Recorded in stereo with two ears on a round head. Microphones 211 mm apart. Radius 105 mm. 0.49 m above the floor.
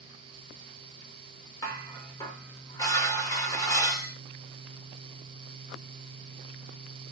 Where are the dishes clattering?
15° left (ahead or behind), 0.7 m.